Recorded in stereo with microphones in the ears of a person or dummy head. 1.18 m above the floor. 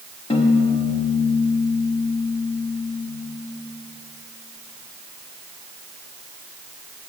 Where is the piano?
35° left (ahead or behind), 0.8 m.